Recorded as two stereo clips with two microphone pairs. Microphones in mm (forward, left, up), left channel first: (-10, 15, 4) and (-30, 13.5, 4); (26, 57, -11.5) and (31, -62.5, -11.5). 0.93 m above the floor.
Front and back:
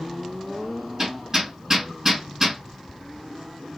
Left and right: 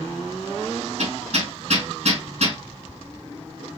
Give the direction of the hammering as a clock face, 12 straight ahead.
4 o'clock.